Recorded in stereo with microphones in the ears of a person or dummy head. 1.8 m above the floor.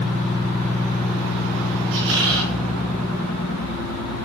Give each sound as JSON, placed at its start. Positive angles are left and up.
{"t": 1.9, "sound": "a squeak", "side_deg": -70, "distance_m": 5.0}